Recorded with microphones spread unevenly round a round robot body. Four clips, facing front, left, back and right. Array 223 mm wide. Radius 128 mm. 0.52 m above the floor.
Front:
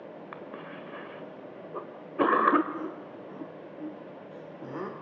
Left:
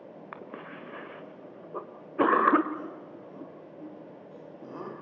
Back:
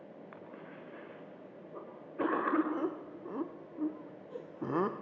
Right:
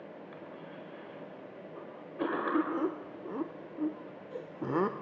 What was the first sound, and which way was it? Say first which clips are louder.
A cough: left 3 dB, front 8 dB; 40° left.